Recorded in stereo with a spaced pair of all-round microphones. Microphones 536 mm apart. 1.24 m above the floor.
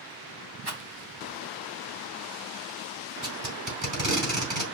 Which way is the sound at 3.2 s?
35° right (ahead or behind).